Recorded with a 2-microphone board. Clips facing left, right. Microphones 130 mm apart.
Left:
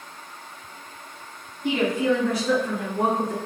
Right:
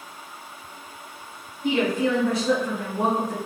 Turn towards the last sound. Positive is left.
turn(degrees=10)  # may be behind; listen again after turning